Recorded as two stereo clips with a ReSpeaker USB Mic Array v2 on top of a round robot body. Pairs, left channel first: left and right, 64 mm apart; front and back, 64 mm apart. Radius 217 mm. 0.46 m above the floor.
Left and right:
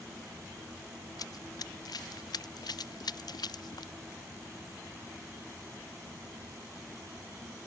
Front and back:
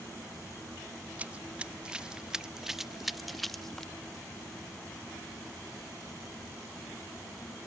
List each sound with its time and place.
1.2 s running footsteps: 110° left; by 3.9 s 85° left